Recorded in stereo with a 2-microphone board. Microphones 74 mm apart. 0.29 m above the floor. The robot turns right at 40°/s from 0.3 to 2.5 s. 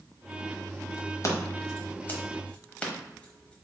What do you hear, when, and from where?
1.2 s scissors: 45° left (ahead or behind), 1.0 m; by 3.5 s 15° left (ahead or behind), 1.0 m